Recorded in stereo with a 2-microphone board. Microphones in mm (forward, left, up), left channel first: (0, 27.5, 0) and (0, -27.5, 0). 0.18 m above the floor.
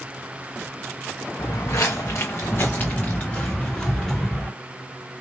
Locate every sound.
1.4 s footsteps: 75° left (ahead or behind), 1.0 m; by 4.5 s 5° left (ahead or behind), 1.7 m